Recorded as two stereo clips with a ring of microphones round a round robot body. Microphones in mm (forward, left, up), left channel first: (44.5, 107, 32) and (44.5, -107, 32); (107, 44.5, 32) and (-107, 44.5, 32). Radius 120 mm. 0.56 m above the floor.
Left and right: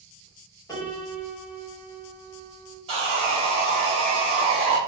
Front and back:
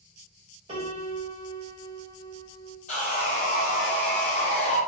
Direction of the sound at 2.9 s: 40° right.